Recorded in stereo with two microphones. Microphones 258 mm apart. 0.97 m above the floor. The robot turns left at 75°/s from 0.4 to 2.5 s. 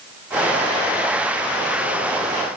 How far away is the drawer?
I don't hear a drawer.